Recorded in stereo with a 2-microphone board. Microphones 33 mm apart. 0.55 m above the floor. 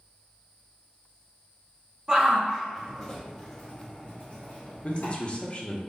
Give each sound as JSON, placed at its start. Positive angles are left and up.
{"t": 2.1, "sound": "a shout", "side_deg": -25, "distance_m": 1.2}
{"t": 4.8, "sound": "a man speaking", "side_deg": 35, "distance_m": 0.7}